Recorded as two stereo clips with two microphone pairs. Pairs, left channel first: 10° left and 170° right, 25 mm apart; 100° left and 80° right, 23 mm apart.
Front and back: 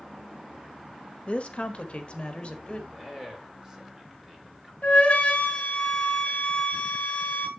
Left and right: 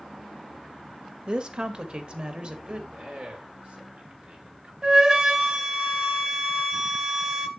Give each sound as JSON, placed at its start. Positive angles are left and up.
{"t": 1.3, "sound": "a woman speaking", "azimuth_deg": -30, "distance_m": 1.0}
{"t": 2.9, "sound": "a man speaking", "azimuth_deg": -100, "distance_m": 2.5}
{"t": 4.8, "sound": "a flute", "azimuth_deg": -25, "distance_m": 1.4}